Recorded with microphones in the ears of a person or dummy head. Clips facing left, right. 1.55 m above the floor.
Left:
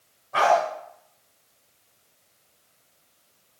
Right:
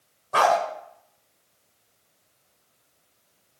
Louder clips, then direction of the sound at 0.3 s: Left 1 dB; 70° right (ahead or behind).